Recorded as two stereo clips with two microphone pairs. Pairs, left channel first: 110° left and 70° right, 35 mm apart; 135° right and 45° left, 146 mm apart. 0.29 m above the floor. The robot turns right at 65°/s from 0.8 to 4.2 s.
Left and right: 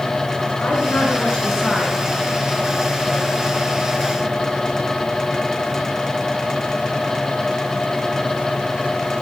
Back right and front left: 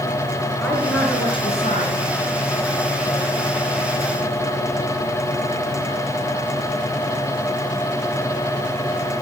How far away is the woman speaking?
About 4 m.